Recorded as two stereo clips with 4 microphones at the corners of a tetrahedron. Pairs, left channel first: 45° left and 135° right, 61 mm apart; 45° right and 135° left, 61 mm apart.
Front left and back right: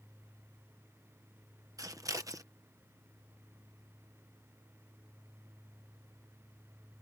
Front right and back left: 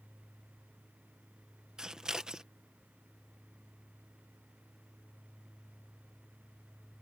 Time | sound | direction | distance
1.8 | scissors | 145° right | ?